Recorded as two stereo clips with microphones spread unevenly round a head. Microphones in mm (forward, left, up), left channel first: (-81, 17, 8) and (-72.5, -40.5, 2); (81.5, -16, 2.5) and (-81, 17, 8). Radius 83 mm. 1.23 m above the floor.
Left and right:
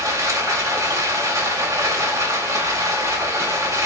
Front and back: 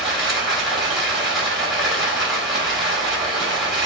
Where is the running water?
105° right, 1.7 m.